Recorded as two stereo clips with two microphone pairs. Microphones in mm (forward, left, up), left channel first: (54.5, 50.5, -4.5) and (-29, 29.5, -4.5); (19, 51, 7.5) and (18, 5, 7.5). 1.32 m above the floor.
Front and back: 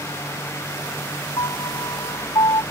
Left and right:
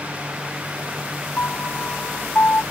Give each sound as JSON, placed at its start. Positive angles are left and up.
{"t": 1.4, "sound": "a piano", "azimuth_deg": 45}